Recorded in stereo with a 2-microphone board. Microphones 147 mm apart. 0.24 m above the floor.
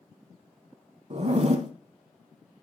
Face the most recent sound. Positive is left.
turn(degrees=-50)  # may be behind; listen again after turning